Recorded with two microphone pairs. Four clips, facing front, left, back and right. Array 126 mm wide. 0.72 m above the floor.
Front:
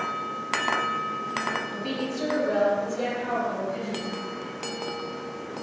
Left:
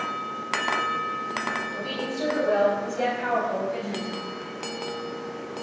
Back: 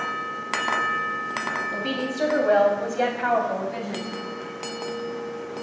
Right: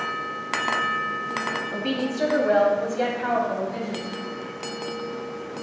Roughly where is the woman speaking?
Behind right.